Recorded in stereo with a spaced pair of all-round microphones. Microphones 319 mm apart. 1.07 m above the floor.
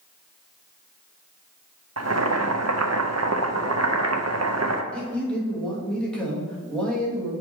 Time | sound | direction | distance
2.0 | boiling | 55° right (ahead or behind) | 0.7 m
4.9 | a man speaking | 5° left (ahead or behind) | 2.0 m